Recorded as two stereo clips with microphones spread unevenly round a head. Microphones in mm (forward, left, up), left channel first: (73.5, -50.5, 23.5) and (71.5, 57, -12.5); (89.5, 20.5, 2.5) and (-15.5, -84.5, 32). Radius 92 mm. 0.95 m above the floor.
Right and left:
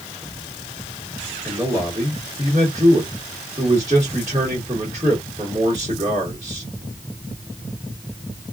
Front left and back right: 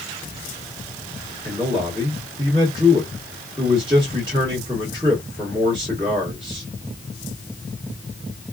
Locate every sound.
1.4 s a man speaking: 155° left, 1.5 m